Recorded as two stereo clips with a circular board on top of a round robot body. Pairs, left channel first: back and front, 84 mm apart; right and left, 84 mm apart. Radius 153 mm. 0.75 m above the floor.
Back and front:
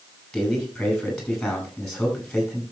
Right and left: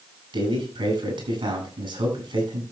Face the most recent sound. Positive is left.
turn(degrees=95)